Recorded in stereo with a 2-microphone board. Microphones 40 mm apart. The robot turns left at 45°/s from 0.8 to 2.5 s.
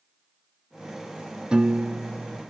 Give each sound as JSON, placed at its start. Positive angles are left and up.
{"t": 1.5, "sound": "a piano", "azimuth_deg": -20, "distance_m": 0.7}